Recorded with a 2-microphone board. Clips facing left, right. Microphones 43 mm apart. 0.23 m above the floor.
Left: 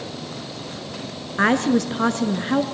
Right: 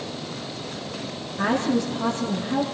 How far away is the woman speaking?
About 2.5 m.